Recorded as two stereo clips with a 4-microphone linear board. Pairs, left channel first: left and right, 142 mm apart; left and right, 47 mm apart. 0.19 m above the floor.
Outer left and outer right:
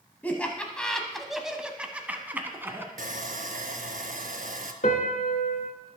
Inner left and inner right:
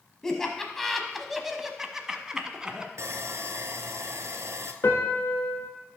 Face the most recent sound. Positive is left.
turn(degrees=60)  # may be behind; listen again after turning